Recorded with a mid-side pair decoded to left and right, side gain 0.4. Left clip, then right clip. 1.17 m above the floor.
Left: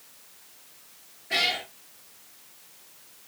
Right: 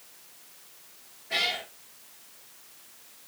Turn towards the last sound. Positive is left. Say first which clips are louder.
# left 3 dB
turn(degrees=40)